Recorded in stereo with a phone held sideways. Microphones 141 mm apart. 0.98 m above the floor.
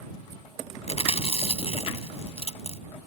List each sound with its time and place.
0.9 s chewing: 45° left (ahead or behind)